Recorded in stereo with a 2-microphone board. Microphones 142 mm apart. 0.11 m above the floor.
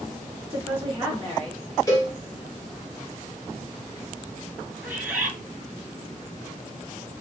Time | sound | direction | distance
0.5 | a woman speaking | 20° right (ahead or behind) | 1.2 m
1.9 | a cowbell | 20° left (ahead or behind) | 1.4 m
4.8 | a bird | 10° right (ahead or behind) | 1.8 m